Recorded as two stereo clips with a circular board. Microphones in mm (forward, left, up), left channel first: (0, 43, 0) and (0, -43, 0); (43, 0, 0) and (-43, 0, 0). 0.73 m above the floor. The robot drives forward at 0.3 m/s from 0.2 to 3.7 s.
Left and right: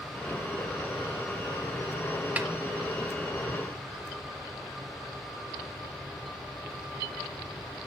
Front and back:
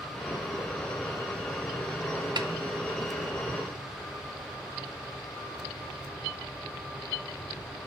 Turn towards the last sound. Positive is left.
turn(degrees=-170)